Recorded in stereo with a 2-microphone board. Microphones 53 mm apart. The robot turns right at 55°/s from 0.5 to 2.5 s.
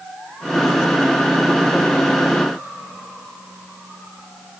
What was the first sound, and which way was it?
Only background noise.